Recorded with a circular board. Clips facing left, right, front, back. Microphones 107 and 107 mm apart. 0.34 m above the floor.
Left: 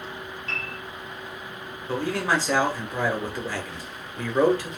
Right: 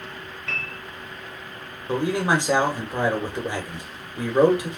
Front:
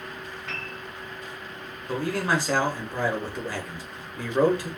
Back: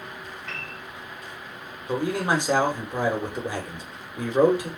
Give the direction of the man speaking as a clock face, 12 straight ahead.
5 o'clock.